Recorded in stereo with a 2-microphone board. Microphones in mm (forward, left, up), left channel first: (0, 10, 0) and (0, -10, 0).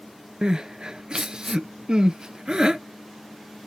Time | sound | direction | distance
0.4 | crying | 45° right (ahead or behind) | 0.5 m